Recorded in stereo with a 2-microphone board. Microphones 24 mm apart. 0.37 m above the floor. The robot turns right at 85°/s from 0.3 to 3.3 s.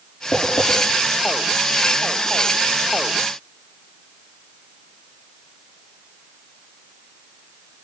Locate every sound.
0.3 s tapping: 75° left (ahead or behind), 6.5 m; by 0.7 s 70° left (ahead or behind), 6.5 m